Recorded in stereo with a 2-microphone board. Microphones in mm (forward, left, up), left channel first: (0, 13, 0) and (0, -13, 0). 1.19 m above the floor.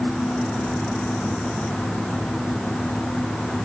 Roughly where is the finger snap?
I don't hear a finger snap.